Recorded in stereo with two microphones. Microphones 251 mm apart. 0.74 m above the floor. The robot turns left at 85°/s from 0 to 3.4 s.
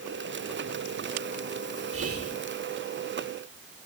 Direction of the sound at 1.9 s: 65° right.